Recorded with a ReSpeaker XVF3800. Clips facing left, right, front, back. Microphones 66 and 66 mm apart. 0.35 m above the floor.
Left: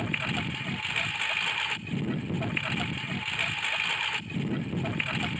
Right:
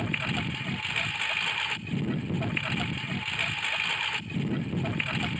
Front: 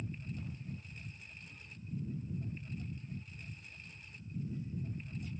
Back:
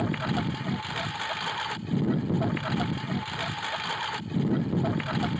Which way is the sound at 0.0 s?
Straight behind.